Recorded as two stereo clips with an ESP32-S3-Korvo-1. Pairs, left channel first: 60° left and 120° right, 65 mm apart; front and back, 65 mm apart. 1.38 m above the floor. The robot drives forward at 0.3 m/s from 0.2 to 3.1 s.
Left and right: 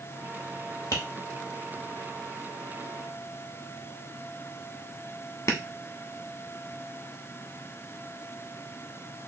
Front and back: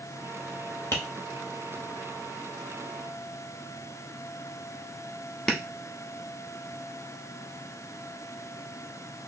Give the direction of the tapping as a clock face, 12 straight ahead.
11 o'clock.